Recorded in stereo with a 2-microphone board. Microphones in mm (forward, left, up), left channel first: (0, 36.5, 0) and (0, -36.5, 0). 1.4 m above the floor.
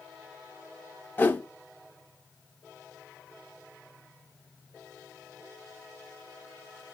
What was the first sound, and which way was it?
A whoosh, 25° left (ahead or behind).